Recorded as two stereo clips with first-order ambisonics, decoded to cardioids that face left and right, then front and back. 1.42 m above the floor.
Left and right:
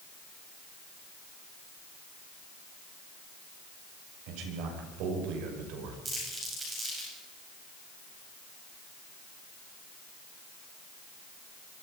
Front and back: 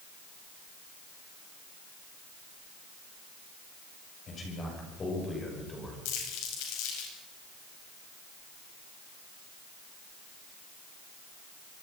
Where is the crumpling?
15° right, 9.5 m.